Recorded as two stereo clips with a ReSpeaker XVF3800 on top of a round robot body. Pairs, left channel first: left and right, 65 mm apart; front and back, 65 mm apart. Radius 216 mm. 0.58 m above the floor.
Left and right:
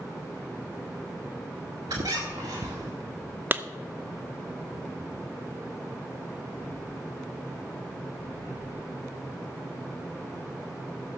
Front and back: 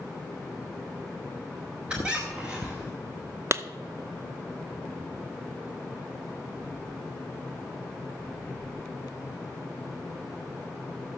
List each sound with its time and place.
1.9 s a squeak: 105° right, 0.7 m
3.5 s a clap: 140° right, 0.8 m